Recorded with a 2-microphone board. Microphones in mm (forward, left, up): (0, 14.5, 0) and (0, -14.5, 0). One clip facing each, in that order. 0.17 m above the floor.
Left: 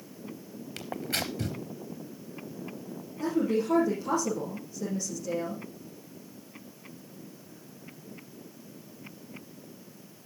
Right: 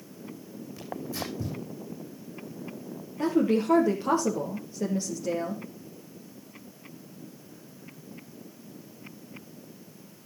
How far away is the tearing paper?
About 3.5 m.